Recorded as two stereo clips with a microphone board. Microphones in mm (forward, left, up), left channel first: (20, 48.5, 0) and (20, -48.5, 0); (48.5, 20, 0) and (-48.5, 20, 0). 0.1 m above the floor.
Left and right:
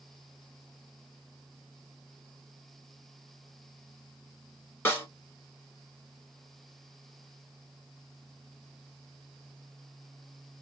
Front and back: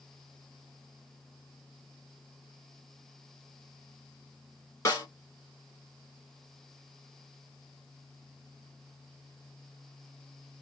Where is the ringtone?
No ringtone in this recording.